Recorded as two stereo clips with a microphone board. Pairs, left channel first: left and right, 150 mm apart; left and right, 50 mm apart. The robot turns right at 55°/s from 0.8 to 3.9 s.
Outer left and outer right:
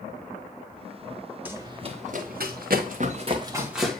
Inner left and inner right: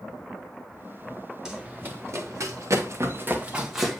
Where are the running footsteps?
10° right (ahead or behind), 1.9 m; by 4.0 s 5° left (ahead or behind), 2.0 m.